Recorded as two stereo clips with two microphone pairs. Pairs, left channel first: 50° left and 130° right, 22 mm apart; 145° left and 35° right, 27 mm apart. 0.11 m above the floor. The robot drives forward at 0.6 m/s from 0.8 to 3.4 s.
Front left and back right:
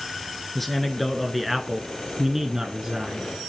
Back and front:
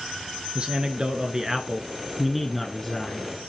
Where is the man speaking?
25° right, 1.4 m; by 3.3 s 155° right, 1.4 m.